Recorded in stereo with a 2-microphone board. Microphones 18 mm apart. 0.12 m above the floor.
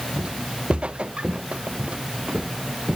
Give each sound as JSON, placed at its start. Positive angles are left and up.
{"t": 0.2, "sound": "footsteps", "side_deg": -70}